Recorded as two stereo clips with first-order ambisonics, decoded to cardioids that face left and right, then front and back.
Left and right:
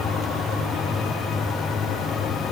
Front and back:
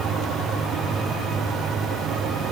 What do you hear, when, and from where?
Only background noise.